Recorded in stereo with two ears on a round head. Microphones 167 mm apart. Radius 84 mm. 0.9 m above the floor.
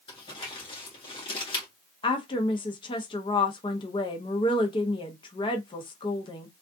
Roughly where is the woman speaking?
Left.